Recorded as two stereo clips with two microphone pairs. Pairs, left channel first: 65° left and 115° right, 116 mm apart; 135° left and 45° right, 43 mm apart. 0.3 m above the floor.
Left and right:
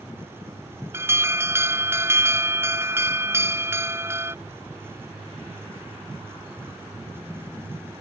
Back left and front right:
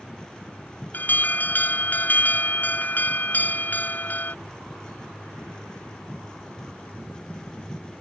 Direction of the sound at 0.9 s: Straight behind.